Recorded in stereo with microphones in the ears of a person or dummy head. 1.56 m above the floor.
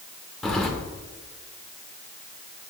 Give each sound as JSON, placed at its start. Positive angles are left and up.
{"t": 0.4, "sound": "keys jangling", "side_deg": 5, "distance_m": 0.9}